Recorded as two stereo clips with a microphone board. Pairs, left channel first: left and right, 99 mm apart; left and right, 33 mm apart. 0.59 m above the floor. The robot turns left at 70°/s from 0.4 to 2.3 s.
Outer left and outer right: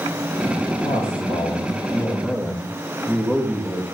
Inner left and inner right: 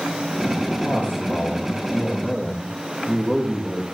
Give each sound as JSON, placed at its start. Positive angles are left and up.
{"t": 0.8, "sound": "a man speaking", "azimuth_deg": 115, "distance_m": 4.5}